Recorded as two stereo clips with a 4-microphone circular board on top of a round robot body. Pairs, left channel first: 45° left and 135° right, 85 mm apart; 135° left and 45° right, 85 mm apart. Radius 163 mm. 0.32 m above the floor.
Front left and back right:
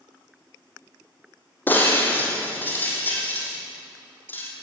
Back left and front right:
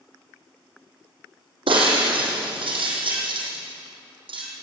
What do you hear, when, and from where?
1.7 s breaking glass: 25° right, 5 m